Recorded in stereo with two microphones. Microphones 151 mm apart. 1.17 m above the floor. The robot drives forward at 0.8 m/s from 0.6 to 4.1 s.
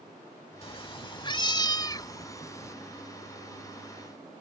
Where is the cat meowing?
40° left (ahead or behind); by 2.8 s 20° left (ahead or behind).